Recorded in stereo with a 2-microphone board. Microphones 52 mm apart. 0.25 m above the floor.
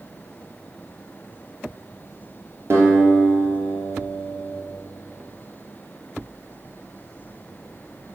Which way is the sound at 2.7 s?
55° right (ahead or behind).